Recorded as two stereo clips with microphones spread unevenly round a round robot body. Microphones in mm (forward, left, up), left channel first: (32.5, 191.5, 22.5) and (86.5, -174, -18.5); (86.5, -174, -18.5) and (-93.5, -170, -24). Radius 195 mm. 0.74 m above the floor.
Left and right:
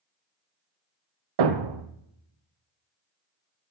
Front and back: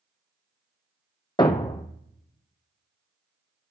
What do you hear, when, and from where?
1.4 s a thud: 65° right, 1.5 m